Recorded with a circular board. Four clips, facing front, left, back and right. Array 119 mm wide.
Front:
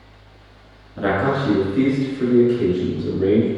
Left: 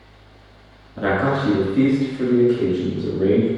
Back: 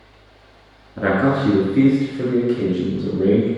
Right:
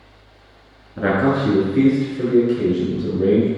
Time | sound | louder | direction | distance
1.0 | a man speaking | right 2 dB, back 2 dB | 145° right | 1.2 m